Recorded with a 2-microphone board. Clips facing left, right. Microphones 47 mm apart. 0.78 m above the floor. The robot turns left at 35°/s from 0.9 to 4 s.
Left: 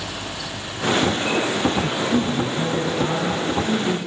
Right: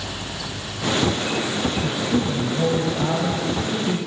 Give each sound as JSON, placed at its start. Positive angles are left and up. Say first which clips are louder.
{"t": 1.8, "sound": "a man speaking", "louder": "left 1 dB", "azimuth_deg": 0, "distance_m": 4.0}